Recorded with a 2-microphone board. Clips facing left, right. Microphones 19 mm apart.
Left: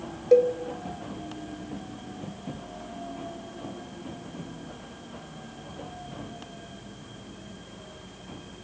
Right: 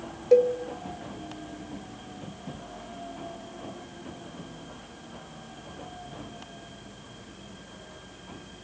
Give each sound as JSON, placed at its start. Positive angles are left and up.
{"t": 0.3, "sound": "a cowbell", "side_deg": -5, "distance_m": 0.5}